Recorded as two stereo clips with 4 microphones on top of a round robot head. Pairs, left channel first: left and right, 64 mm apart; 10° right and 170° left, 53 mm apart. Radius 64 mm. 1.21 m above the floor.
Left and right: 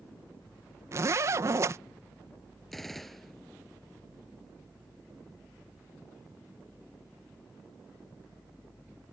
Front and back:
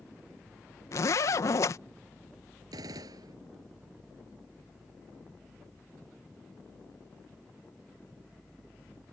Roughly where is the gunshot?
Behind.